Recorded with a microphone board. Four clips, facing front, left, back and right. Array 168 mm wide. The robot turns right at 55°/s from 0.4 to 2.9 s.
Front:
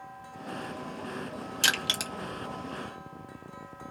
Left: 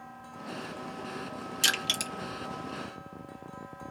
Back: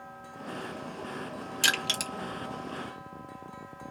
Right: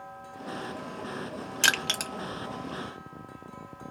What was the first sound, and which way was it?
Crushing, 80° right.